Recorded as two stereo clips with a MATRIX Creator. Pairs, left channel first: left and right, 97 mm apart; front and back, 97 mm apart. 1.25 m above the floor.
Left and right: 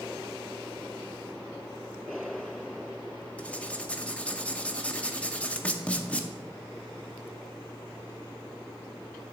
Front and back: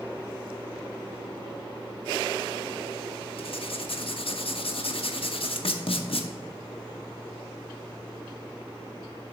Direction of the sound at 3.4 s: 10° left.